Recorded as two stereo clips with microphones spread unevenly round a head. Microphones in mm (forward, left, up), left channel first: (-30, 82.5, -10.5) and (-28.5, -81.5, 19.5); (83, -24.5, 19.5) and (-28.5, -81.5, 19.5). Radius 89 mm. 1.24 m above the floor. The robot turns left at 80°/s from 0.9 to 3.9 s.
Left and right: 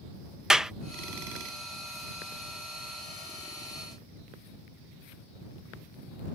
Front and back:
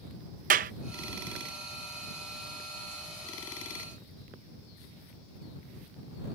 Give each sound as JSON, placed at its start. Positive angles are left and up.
{"t": 0.5, "sound": "a clap", "azimuth_deg": -170}